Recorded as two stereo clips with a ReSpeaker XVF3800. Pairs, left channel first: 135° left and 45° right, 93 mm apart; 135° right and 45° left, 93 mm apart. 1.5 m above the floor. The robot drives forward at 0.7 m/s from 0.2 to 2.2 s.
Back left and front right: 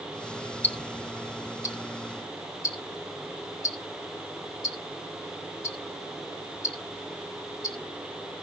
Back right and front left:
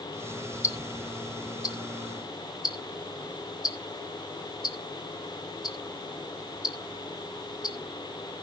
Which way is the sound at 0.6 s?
165° right.